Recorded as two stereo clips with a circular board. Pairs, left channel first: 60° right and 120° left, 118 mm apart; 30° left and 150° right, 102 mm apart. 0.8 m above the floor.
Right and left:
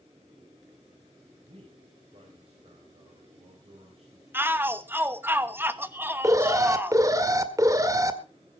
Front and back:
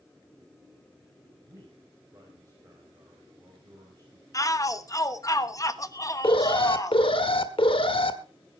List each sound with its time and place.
1.4 s a man speaking: 155° left, 5 m
4.3 s a shout: 60° left, 1.1 m
6.2 s an alarm: 60° left, 1.5 m